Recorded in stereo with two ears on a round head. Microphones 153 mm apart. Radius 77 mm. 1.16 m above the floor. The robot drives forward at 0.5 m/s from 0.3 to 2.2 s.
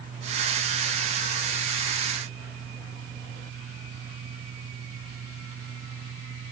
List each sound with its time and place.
Only background noise.